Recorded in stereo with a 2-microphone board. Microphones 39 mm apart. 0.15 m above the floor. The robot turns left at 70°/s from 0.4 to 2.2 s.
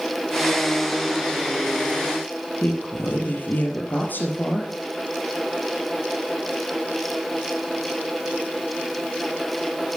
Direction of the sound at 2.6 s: 50° left (ahead or behind).